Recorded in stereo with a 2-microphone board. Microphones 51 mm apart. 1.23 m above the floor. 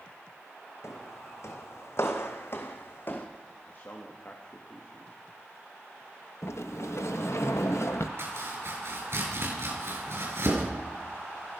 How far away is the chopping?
About 7 m.